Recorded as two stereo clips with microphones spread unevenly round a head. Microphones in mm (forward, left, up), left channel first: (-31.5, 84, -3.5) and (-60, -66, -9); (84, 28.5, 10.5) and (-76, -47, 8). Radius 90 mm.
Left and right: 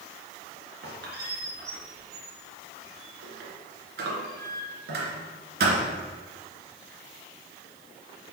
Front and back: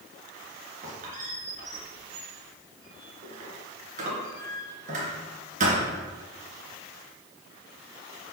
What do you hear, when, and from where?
0.8 s a squeak: 110° right, 2.5 m